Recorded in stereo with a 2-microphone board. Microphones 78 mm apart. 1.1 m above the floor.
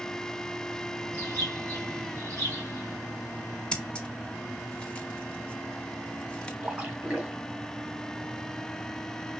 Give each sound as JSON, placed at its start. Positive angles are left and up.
{"t": 1.1, "sound": "a bird", "side_deg": -45, "distance_m": 3.5}
{"t": 3.7, "sound": "scissors", "side_deg": 15, "distance_m": 0.9}
{"t": 6.6, "sound": "a splash", "side_deg": -25, "distance_m": 1.5}